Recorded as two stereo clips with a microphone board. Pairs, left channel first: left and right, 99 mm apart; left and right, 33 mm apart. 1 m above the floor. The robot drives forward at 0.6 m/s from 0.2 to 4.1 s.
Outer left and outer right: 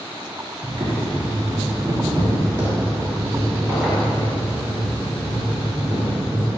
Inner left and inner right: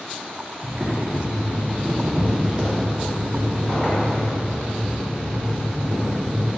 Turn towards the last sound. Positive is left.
turn(degrees=-20)  # may be behind; listen again after turning